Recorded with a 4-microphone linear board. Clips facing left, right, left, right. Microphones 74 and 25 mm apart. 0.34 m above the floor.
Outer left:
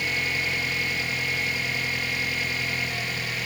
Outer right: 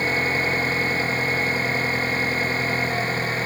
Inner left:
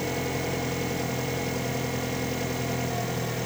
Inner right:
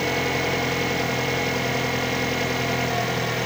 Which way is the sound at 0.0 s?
40° right (ahead or behind).